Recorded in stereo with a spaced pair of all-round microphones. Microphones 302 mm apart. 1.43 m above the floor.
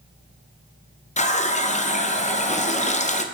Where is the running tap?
25° left (ahead or behind), 0.5 m.